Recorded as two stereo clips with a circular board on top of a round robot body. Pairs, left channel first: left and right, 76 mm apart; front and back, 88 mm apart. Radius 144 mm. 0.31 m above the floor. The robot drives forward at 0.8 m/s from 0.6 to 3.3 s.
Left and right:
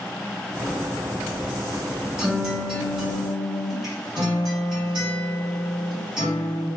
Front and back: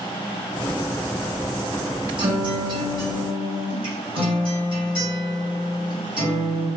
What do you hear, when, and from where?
2.2 s a guitar: 170° right, 2.5 m; by 6.7 s 175° right, 3.5 m